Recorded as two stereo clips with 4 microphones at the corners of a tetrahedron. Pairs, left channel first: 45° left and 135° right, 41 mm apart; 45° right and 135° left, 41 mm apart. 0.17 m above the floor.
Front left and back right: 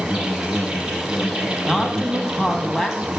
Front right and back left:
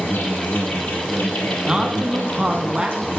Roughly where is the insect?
Ahead right.